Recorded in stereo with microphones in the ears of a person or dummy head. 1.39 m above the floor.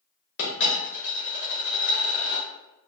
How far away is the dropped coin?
About 1.0 m.